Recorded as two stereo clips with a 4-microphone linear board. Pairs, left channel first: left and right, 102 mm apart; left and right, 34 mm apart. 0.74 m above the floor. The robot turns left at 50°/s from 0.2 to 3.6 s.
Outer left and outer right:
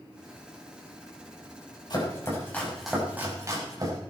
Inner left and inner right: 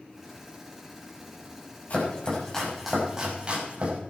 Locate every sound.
1.9 s chopping: 45° left (ahead or behind), 5.5 m; by 4.0 s 35° right (ahead or behind), 5.5 m